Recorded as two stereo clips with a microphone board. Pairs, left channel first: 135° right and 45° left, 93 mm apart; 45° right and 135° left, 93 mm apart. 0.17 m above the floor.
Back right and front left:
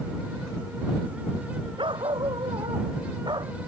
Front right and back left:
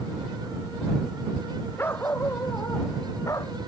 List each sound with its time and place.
1.8 s a dog barking: 20° left; by 3.5 s 10° left